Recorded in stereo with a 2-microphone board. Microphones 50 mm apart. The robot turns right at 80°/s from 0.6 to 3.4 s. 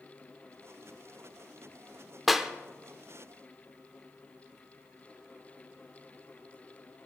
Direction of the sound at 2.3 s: Centre (ahead or behind).